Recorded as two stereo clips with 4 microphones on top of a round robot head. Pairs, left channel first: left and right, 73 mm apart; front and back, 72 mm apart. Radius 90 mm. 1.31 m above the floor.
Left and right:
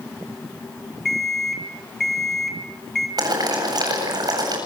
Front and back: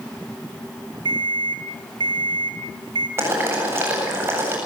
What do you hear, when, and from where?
1.1 s an alarm clock: straight behind, 3 m
3.2 s boiling: 120° right, 8 m